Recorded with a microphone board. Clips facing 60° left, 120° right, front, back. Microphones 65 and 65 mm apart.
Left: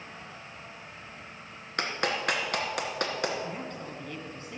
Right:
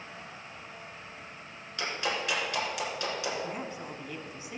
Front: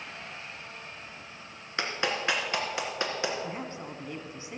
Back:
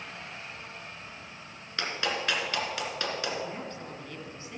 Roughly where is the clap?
Ahead left.